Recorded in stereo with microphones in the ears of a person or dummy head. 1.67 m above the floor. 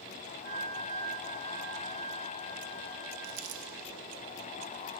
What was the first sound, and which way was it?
A flute, 55° right (ahead or behind).